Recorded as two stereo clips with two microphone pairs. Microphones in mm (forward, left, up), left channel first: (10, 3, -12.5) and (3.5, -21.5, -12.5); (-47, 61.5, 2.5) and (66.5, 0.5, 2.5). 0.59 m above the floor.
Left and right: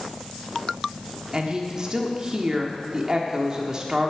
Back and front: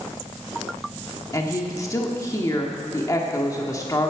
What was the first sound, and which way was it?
A woman speaking, 155° right.